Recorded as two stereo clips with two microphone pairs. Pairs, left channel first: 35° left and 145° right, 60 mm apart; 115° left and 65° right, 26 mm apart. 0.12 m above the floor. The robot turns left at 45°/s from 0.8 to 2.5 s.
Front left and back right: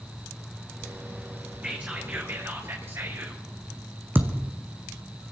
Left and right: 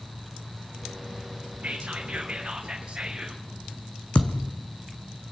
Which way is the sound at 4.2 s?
160° left.